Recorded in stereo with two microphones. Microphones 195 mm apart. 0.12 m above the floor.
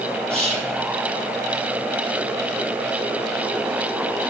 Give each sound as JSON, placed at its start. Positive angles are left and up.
{"t": 0.3, "sound": "whispering", "side_deg": -30, "distance_m": 3.0}